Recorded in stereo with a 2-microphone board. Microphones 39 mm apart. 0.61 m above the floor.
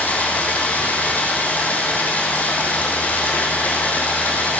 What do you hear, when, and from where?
0.0 s running water: 40° left (ahead or behind), 2.5 m